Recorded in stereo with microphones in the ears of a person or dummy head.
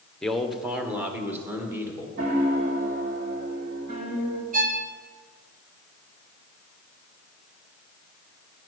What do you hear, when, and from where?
0.2 s a man speaking: 5° left (ahead or behind), 1.0 m; by 2.1 s 15° right (ahead or behind), 2.5 m
2.2 s a piano: 45° right (ahead or behind), 1.8 m
4.5 s a violin: 45° right (ahead or behind), 0.9 m